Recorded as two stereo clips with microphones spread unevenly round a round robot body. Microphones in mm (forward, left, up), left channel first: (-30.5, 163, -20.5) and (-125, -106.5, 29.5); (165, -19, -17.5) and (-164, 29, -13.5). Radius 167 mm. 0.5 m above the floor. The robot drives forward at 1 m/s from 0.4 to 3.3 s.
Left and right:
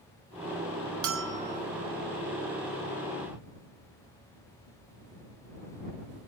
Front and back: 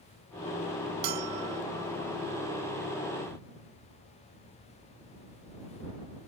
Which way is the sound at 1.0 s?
160° right.